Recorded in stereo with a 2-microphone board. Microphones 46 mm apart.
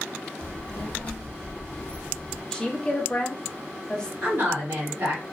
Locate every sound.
0.4 s a child speaking: 25° left (ahead or behind), 0.8 m; by 2.4 s 20° left (ahead or behind), 1.0 m
2.5 s a woman speaking: 15° left (ahead or behind), 0.6 m
4.2 s a woman speaking: 45° right (ahead or behind), 1.7 m